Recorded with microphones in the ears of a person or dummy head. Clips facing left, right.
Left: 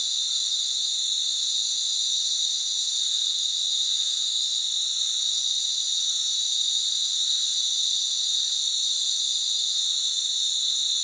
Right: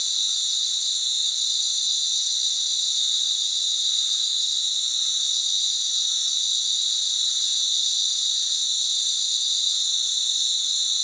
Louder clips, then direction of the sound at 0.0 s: Right 2 dB; 45° right (ahead or behind).